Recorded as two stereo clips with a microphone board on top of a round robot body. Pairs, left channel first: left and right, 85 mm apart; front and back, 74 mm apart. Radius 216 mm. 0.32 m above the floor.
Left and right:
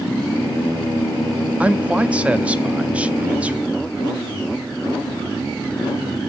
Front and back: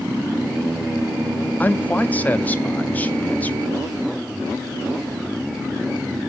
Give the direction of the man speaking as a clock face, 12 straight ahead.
1 o'clock.